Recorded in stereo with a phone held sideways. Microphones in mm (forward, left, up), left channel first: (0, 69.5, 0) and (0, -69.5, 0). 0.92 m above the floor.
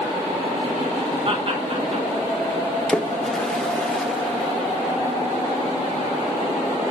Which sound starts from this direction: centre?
A splash, at 2.9 s.